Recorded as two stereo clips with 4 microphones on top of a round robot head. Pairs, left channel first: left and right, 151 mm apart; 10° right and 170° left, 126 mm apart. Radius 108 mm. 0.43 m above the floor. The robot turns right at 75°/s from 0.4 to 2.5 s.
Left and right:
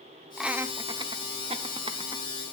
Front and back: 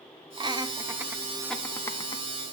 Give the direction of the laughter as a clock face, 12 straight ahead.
6 o'clock.